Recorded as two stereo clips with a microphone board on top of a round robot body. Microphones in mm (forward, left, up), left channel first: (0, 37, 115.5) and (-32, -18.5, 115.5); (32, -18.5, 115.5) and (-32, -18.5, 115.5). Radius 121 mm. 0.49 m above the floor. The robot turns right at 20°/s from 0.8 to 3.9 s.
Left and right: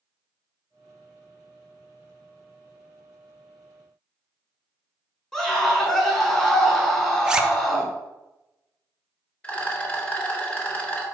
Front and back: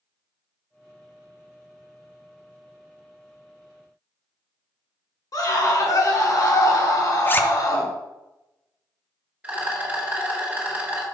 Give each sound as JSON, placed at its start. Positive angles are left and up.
{"t": 5.3, "sound": "a scream", "azimuth_deg": -20, "distance_m": 1.6}
{"t": 7.2, "sound": "a zipper", "azimuth_deg": -45, "distance_m": 0.5}
{"t": 9.4, "sound": "a rattle", "azimuth_deg": 120, "distance_m": 1.3}